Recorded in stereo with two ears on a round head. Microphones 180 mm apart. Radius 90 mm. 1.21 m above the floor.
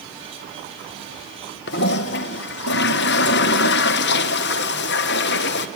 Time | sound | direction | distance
1.7 | a toilet flushing | 55° left (ahead or behind) | 0.7 m